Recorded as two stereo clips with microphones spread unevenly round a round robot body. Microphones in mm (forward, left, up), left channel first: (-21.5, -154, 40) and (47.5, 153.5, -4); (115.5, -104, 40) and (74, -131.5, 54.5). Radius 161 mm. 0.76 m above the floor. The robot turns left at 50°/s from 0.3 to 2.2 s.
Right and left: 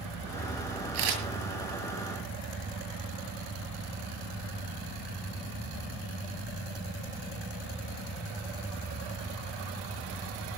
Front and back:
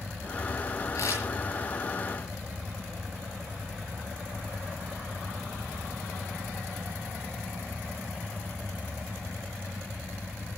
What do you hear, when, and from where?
0.9 s a camera shutter: 75° left, 8.5 m; by 1.2 s 60° left, 8.5 m